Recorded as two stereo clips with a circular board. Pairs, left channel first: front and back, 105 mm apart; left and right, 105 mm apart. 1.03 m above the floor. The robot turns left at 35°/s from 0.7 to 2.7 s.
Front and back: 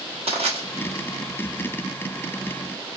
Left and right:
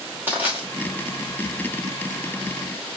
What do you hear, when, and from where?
0.3 s crushing: 160° right, 1.1 m